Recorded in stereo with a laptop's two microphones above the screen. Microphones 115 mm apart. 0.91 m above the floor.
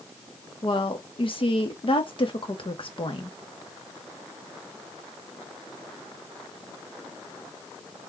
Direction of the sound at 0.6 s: 50° left (ahead or behind).